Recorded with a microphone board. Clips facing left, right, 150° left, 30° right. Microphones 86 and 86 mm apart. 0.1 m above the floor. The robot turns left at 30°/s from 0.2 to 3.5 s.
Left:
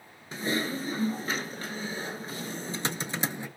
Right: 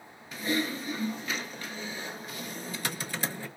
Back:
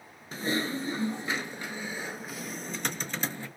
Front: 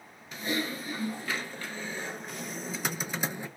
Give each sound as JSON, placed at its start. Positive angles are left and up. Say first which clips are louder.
{"t": 0.3, "sound": "typing on a keyboard", "louder": "even, back 2 dB", "azimuth_deg": 125, "distance_m": 0.5}